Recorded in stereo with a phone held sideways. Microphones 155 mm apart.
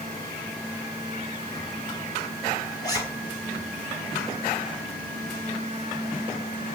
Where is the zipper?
25° left (ahead or behind), 9 m.